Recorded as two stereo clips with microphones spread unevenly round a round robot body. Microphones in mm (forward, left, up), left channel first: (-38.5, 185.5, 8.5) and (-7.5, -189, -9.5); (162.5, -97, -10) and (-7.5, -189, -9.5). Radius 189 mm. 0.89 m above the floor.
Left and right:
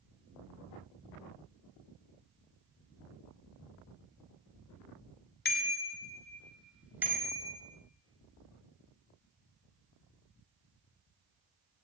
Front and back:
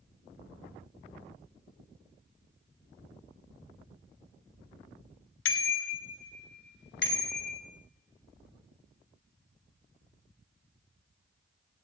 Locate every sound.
5.5 s a bicycle bell: 25° left, 2 m; by 7.6 s 5° right, 4.5 m